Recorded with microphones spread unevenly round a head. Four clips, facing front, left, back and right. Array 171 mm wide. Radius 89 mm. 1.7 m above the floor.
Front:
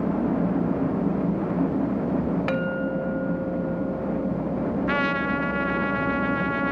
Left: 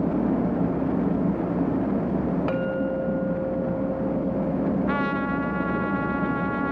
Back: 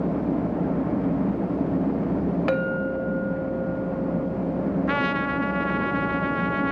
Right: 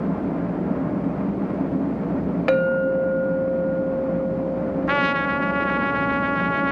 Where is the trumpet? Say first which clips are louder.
Right 3 dB, even; 95° right, 0.7 m.